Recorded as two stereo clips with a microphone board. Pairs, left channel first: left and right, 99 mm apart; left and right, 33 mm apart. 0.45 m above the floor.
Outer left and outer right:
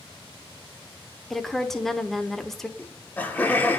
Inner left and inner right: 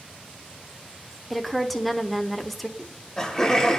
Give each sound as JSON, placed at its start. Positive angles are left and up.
{"t": 1.3, "sound": "a woman speaking", "side_deg": 5, "distance_m": 0.9}
{"t": 2.8, "sound": "laughter", "side_deg": 20, "distance_m": 0.8}